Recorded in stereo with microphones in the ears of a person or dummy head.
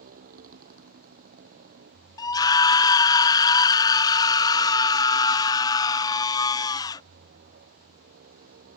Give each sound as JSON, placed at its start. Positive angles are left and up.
{"t": 0.0, "sound": "a motorcycle", "side_deg": -45}
{"t": 2.2, "sound": "a scream", "side_deg": 20}